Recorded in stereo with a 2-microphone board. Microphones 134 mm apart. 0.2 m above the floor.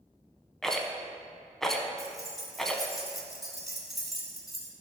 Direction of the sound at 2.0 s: Centre (ahead or behind).